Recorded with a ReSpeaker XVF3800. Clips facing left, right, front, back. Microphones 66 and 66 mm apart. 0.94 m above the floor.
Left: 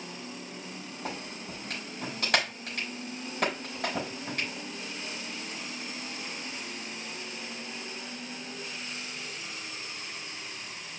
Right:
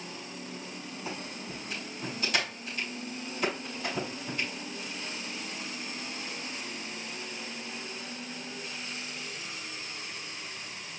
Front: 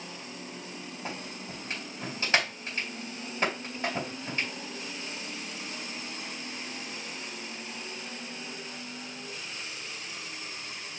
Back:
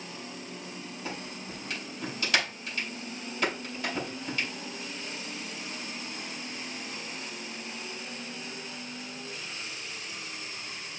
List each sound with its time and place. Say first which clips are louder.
1.1 s a clap: left 1 dB, even; 60° left, 4.5 m